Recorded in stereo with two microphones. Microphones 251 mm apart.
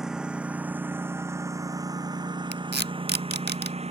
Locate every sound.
0.0 s a lawn mower: centre (ahead or behind); by 3.9 s 25° right (ahead or behind)
2.5 s tape being pulled: 45° right (ahead or behind)